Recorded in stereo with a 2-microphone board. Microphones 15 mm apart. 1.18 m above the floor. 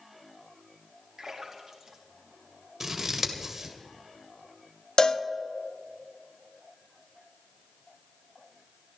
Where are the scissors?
25° right (ahead or behind), 1.9 m.